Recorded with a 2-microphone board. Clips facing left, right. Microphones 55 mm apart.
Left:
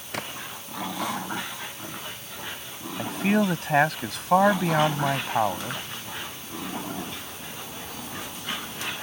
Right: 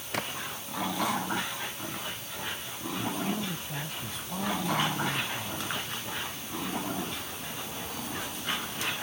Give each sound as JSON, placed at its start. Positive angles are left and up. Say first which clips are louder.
{"t": 0.1, "sound": "a splash", "louder": "even", "side_deg": 0}
{"t": 3.0, "sound": "a man speaking", "louder": "left 10 dB", "side_deg": 80}